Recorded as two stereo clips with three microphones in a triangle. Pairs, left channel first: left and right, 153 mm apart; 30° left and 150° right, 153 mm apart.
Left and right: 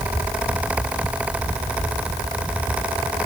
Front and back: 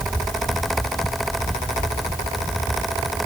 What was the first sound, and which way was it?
Only background noise.